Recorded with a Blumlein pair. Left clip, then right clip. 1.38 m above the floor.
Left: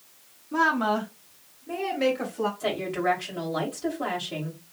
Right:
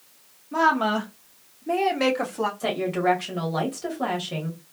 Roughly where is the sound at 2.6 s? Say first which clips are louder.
Right 4 dB; ahead.